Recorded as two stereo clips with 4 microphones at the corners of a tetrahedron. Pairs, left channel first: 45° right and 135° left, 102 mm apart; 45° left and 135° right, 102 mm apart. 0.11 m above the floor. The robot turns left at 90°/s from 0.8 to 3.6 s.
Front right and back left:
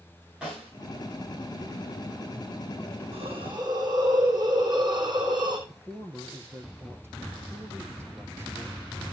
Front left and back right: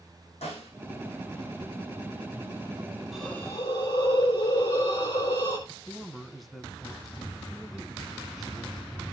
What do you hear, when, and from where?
0.4 s a snare drum: 55° left, 7.5 m
3.1 s a hiss: 135° left, 3 m; by 5.6 s 90° left, 3 m
5.7 s a man speaking: 135° left, 1.1 m